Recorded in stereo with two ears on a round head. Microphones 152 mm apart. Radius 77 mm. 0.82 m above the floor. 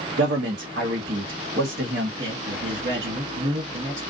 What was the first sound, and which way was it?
A man speaking, 70° right (ahead or behind).